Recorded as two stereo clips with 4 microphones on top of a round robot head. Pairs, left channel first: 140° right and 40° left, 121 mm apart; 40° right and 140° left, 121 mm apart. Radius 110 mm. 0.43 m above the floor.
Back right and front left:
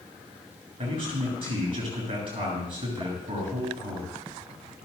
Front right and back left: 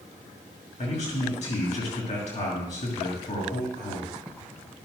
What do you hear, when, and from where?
0.8 s a man speaking: 10° right, 5.5 m